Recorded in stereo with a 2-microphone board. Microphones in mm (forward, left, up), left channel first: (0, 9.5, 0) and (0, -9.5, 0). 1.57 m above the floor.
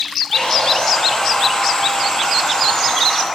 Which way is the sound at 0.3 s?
45° left (ahead or behind).